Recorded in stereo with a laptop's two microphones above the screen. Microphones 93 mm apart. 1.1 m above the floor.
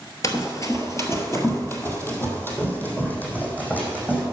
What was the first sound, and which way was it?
Running footsteps, 40° left (ahead or behind).